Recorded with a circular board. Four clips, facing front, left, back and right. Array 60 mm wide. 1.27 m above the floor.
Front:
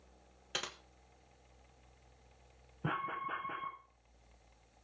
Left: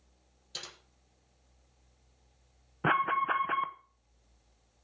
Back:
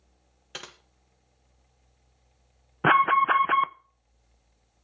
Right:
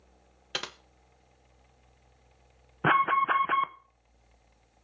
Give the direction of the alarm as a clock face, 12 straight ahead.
6 o'clock.